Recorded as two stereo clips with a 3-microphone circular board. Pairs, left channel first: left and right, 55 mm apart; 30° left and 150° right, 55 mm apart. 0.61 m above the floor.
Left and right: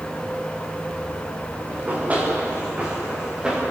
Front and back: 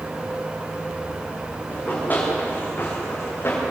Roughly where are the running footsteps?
Ahead right.